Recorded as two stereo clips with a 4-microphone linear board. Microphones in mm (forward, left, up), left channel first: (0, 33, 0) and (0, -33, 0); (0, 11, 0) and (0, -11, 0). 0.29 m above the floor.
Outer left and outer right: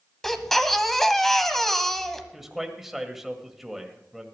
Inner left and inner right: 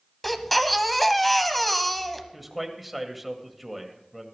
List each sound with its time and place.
0.2 s a baby crying: 5° left (ahead or behind), 1.0 m
2.3 s a man speaking: 5° right (ahead or behind), 1.6 m